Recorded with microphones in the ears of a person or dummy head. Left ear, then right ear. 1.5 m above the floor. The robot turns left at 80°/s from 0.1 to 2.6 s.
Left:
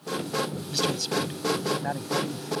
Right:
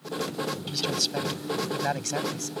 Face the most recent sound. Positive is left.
turn(degrees=-145)